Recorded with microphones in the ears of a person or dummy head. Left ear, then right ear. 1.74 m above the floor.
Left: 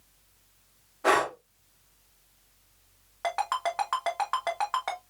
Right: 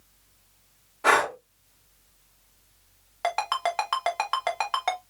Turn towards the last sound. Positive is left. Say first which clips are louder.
# right 2 dB
turn(degrees=-20)  # may be behind; listen again after turning